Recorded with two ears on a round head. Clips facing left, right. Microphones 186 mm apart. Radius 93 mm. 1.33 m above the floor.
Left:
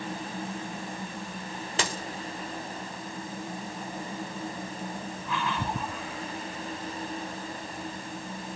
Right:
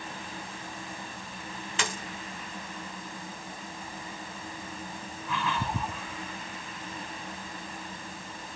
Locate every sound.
1.8 s a dropped coin: 30° left (ahead or behind), 1.4 m